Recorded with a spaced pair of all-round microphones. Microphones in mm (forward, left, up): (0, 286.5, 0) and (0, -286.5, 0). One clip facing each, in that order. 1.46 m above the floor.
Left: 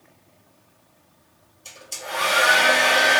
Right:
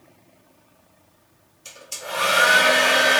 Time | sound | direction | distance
1.6 | a hair dryer | 35° right (ahead or behind) | 1.1 m